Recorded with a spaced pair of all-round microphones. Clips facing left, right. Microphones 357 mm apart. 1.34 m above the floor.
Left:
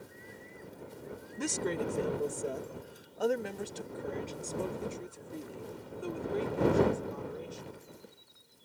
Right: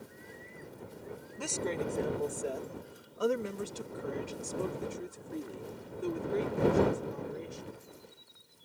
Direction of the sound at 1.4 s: 30° left (ahead or behind).